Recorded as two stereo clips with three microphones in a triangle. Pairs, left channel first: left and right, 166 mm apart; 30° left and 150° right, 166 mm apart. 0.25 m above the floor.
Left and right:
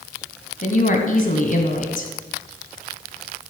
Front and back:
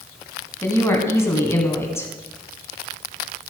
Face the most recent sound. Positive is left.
turn(degrees=100)